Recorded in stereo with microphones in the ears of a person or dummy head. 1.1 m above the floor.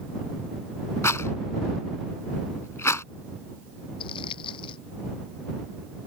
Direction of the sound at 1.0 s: 20° left (ahead or behind).